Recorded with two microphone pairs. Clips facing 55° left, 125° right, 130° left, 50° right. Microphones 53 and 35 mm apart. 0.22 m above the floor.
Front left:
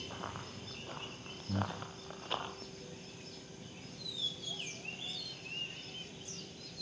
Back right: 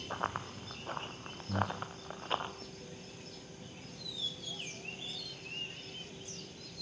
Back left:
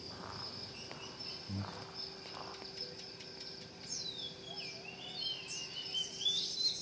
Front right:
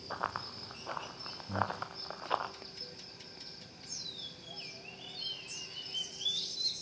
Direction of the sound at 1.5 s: 20° left.